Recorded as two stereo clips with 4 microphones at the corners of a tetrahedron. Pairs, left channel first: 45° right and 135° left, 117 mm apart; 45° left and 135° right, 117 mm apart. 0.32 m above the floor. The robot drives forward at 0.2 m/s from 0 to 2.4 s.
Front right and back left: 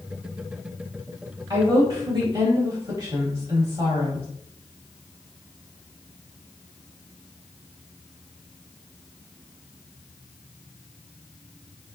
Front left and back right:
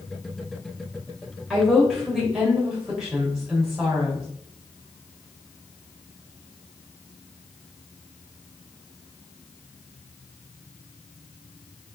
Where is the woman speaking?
135° left, 1.1 m; by 4.2 s 140° left, 1.2 m.